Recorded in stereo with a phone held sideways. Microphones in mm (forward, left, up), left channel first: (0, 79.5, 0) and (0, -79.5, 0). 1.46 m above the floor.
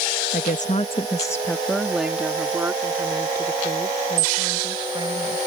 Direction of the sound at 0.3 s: 65° left (ahead or behind).